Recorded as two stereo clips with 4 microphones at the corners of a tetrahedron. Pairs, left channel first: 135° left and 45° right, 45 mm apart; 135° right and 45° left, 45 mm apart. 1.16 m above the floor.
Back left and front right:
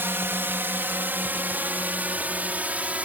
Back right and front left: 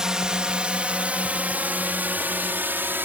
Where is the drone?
30° right; by 3.1 s 10° left.